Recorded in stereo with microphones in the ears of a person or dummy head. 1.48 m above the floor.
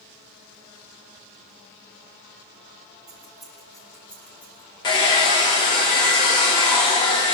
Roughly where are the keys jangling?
Centre.